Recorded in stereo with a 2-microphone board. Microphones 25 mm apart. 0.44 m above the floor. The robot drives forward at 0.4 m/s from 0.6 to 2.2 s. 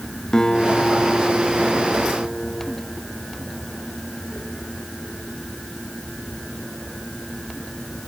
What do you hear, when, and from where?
0.3 s a guitar: 25° left (ahead or behind), 3 m; by 2.8 s 20° left (ahead or behind), 3.5 m